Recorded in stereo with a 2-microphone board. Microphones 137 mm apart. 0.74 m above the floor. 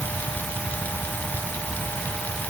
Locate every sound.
Only background noise.